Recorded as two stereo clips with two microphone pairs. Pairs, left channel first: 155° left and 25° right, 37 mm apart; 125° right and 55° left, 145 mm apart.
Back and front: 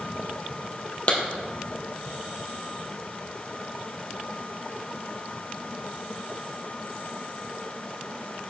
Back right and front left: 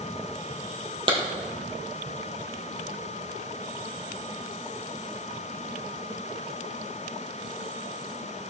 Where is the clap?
110° left, 3 m.